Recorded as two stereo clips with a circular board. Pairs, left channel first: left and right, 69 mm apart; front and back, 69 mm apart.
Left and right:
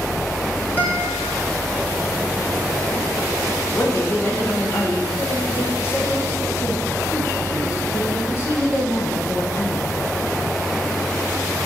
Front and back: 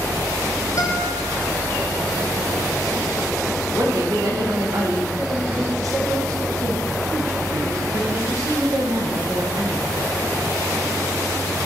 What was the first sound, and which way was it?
A guitar, 30° left.